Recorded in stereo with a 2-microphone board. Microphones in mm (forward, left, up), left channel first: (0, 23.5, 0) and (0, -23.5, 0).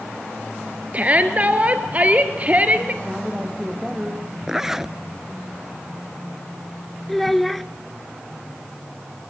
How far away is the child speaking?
About 0.9 m.